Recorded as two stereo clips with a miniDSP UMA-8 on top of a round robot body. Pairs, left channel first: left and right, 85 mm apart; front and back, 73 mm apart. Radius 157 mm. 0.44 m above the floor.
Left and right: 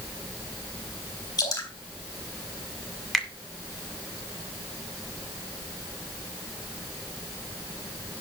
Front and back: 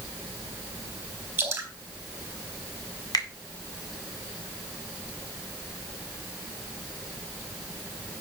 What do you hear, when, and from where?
1.4 s dripping: 125° left, 4 m
3.1 s a finger snap: 5° left, 2.5 m